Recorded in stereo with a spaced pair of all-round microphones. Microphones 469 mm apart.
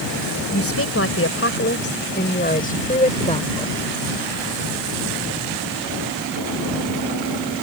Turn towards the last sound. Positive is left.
turn(degrees=10)  # may be behind; listen again after turning